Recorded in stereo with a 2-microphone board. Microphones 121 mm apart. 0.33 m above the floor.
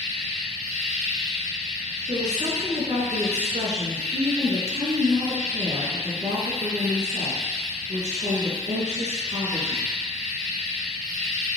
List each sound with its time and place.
0.0 s an insect: 80° right, 3.5 m
2.1 s a woman speaking: 65° right (ahead or behind), 3.5 m